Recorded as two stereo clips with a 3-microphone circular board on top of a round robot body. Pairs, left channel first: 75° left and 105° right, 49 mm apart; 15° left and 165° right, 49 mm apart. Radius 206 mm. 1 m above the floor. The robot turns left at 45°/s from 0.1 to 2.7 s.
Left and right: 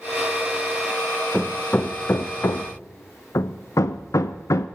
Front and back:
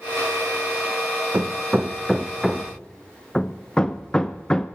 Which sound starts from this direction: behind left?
Hammering, at 1.3 s.